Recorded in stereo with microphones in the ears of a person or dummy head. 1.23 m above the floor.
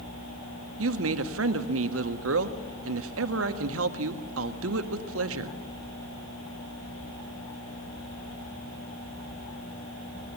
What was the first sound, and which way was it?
A woman speaking, 85° right.